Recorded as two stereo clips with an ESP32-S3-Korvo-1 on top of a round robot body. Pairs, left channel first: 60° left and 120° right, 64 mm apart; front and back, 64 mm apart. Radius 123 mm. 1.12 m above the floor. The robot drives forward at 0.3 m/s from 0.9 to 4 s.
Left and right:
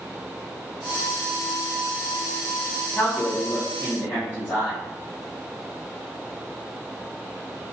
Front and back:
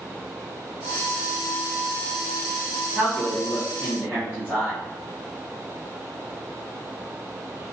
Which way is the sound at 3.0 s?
110° left.